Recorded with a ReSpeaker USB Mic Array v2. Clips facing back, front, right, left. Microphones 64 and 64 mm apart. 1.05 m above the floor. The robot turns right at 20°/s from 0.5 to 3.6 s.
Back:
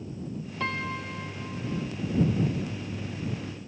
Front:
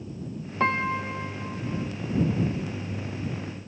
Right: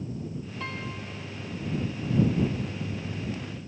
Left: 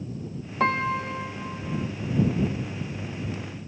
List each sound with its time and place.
0.6 s a piano: 55° left; by 1.9 s 80° left